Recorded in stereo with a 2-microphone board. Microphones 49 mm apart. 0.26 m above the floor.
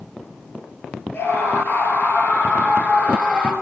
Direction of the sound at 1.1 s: 50° left (ahead or behind).